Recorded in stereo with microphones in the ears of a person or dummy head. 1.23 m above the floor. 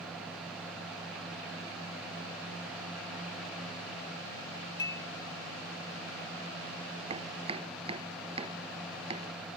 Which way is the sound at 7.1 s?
30° right (ahead or behind).